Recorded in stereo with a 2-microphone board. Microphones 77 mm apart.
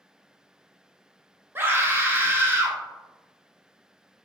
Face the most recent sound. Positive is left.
turn(degrees=-30)  # may be behind; listen again after turning